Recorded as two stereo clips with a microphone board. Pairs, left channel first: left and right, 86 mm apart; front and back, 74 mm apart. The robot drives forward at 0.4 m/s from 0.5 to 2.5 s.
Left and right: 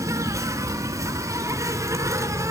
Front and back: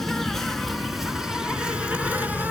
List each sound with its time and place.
0.0 s an insect: 85° right, 1.7 m; by 2.5 s 125° right, 1.8 m